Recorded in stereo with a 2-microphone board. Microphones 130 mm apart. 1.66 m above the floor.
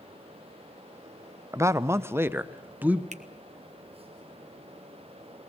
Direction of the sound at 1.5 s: 20° right (ahead or behind).